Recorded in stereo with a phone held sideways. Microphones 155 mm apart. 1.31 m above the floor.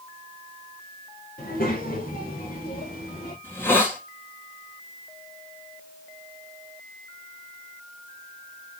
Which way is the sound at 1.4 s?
80° left.